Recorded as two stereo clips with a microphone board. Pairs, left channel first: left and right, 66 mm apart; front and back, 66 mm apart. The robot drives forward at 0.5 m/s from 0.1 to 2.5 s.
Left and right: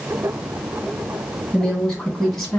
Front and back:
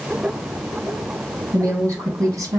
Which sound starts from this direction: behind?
A woman speaking, at 1.5 s.